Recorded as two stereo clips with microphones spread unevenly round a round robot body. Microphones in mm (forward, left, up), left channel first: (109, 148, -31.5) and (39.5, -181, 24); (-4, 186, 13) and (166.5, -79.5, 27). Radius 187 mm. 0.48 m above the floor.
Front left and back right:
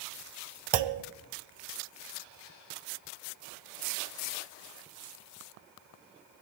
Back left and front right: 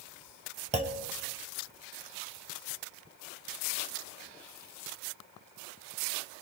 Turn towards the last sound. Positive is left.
turn(degrees=-130)